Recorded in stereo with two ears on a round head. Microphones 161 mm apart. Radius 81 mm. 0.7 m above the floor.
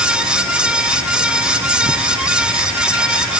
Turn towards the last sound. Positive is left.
No sound to turn to.